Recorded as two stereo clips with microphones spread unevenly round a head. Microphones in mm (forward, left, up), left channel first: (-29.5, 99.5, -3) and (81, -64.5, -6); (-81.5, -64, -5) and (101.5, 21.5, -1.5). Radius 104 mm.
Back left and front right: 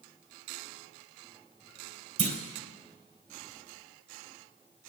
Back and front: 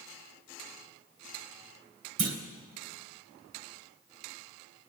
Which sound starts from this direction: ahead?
A clunk, at 2.2 s.